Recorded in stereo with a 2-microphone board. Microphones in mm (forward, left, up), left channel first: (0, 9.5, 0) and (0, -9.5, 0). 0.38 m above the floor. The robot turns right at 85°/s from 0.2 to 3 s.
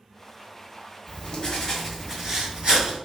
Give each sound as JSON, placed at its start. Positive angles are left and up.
{"t": 1.1, "sound": "writing", "azimuth_deg": 100, "distance_m": 1.4}